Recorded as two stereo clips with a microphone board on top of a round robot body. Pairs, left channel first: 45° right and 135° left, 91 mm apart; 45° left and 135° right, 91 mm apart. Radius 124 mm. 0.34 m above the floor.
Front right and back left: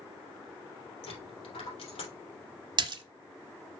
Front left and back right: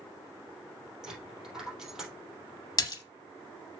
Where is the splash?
95° left, 1.2 m.